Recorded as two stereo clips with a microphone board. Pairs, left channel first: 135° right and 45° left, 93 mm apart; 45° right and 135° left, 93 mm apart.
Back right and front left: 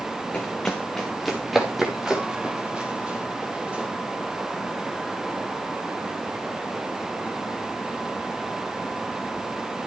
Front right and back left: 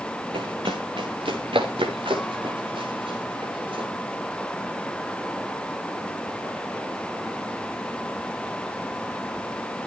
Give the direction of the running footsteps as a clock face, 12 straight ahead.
7 o'clock.